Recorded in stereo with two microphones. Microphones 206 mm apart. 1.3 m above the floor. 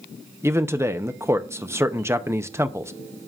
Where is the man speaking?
15° right (ahead or behind), 0.7 m.